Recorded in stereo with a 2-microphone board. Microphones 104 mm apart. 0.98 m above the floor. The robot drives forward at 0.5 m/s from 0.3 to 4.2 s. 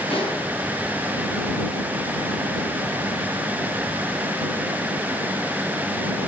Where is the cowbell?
No cowbell in this recording.